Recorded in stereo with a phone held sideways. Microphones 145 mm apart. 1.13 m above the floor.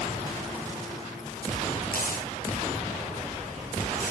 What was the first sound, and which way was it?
Tearing paper, 80° left.